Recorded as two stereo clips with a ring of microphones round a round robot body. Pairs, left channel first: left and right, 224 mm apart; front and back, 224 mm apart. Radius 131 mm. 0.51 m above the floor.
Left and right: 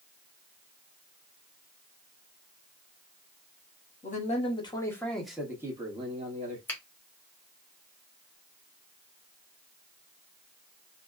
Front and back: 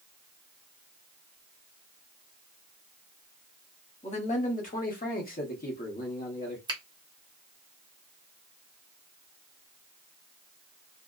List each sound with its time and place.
4.0 s a man speaking: 50° left, 1.2 m; by 6.6 s 45° right, 1.3 m
6.7 s a finger snap: 155° left, 1.1 m